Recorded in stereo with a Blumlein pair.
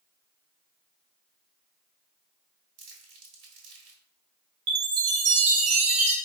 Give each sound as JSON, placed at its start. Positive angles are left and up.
{"t": 2.8, "sound": "crumpling", "azimuth_deg": -45, "distance_m": 1.4}
{"t": 4.7, "sound": "a chime", "azimuth_deg": -45, "distance_m": 1.1}